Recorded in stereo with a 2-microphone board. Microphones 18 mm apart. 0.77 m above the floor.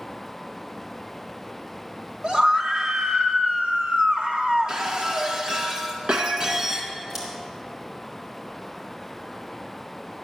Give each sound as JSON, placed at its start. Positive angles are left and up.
{"t": 2.2, "sound": "a scream", "side_deg": -55, "distance_m": 1.7}
{"t": 4.7, "sound": "breaking glass", "side_deg": -45, "distance_m": 2.0}
{"t": 7.1, "sound": "scissors", "side_deg": -20, "distance_m": 4.5}